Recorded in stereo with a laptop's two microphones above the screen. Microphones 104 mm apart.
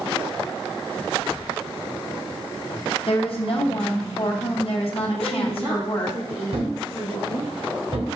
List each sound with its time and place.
3.1 s a woman speaking: 60° left (ahead or behind), 0.8 m
5.2 s a woman speaking: 75° right (ahead or behind), 1.9 m
6.5 s a thud: 75° right (ahead or behind), 1.7 m